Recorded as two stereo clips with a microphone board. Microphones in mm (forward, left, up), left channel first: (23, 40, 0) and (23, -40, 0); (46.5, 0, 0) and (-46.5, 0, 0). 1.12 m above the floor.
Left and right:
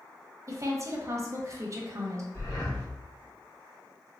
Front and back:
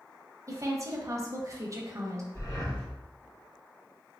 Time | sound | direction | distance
0.5 | a woman speaking | 130° right | 0.6 m
2.3 | breathing | 50° left | 1.6 m